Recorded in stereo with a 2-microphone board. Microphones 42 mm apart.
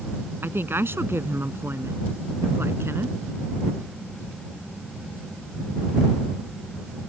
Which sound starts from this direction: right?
A woman speaking, at 0.4 s.